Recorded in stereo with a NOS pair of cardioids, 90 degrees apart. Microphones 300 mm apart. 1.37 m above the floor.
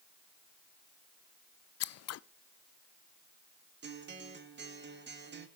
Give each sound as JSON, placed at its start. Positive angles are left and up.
{"t": 1.8, "sound": "scissors", "azimuth_deg": 60, "distance_m": 0.5}
{"t": 3.8, "sound": "a guitar", "azimuth_deg": -35, "distance_m": 2.0}